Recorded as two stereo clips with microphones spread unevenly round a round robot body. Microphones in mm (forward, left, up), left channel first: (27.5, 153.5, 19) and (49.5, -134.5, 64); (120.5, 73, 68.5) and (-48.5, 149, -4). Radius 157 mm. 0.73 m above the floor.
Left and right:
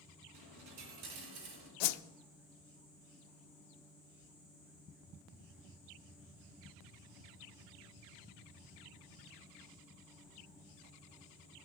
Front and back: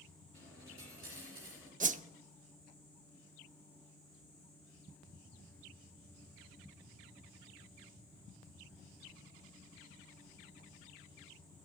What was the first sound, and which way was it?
A dropped coin, 100° right.